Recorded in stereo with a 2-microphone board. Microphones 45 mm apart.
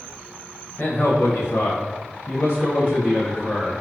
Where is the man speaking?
55° left (ahead or behind), 0.9 m; by 3.8 s 5° left (ahead or behind), 1.2 m.